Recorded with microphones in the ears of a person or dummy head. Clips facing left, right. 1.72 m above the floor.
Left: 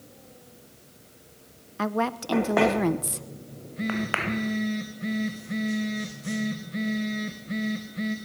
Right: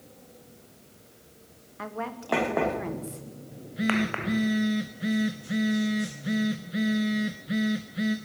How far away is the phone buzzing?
About 1.1 m.